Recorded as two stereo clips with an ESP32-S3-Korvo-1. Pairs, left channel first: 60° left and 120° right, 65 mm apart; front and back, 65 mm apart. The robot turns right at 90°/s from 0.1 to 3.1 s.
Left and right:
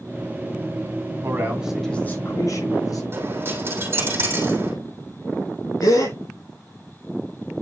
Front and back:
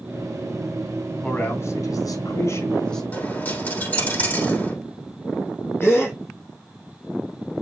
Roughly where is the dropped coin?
Ahead right.